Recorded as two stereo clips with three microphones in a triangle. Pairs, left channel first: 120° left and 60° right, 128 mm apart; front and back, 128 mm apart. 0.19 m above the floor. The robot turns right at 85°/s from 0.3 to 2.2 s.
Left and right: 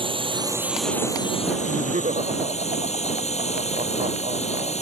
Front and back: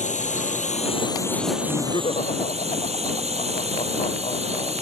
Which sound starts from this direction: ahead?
A drone, at 0.0 s.